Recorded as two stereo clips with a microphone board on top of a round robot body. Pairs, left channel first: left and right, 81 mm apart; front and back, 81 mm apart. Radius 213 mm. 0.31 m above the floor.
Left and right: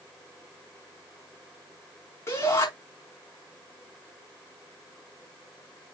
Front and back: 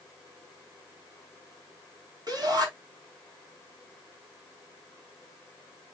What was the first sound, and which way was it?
A shout, 145° left.